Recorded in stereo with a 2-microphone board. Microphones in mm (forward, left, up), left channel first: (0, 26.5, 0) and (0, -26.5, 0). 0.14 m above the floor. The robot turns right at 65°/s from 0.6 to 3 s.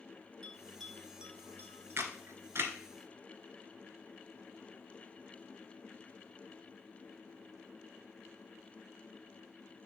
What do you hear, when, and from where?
0.4 s a bell: 15° left (ahead or behind), 2.5 m; by 2.0 s 50° right (ahead or behind), 2.5 m
2.0 s a camera shutter: 45° right (ahead or behind), 1.4 m